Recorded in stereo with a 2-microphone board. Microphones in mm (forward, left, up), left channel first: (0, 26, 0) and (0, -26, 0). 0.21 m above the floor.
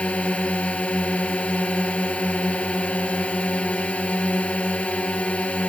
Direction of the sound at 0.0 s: 25° left (ahead or behind).